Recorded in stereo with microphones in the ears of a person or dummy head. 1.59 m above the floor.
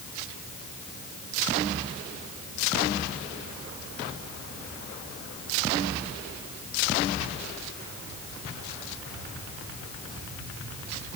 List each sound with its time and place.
Only background noise.